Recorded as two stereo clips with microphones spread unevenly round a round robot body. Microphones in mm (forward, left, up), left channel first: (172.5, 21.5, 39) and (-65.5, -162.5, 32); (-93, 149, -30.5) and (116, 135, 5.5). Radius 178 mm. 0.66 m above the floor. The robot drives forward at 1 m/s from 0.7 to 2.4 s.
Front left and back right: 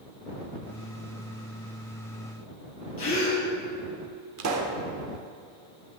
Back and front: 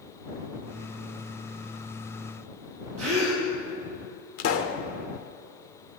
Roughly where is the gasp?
Ahead.